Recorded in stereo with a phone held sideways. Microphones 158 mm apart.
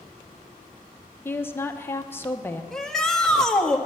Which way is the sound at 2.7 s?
5° left (ahead or behind).